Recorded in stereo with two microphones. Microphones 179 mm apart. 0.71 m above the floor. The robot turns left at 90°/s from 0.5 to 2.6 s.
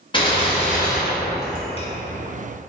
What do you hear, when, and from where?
0.1 s a gunshot: 150° left, 0.7 m; by 1.9 s 25° left, 0.7 m